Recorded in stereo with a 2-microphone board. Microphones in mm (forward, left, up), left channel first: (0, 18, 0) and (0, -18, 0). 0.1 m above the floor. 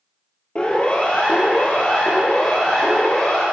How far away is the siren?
About 3.5 m.